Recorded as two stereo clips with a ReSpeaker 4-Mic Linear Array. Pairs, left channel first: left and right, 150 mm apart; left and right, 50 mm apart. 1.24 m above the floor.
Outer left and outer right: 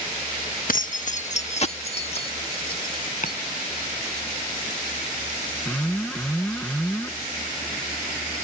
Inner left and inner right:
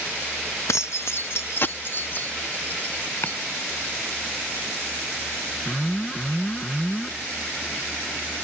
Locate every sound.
0.7 s keys jangling: 70° left (ahead or behind); by 3.4 s 35° left (ahead or behind)
3.2 s chopping: 60° left (ahead or behind)
5.7 s an alarm: 5° left (ahead or behind)